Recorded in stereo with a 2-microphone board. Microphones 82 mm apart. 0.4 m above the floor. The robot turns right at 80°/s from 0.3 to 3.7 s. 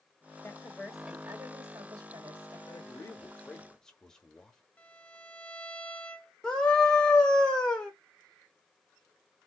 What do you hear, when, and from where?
0.4 s a woman speaking: 135° left, 1.7 m; by 2.6 s 50° right, 1.7 m
2.7 s a man speaking: 85° left, 1.1 m; by 4.6 s 170° left, 1.1 m
4.8 s a violin: 20° left (ahead or behind), 1.0 m
6.4 s a scream: 10° left (ahead or behind), 1.0 m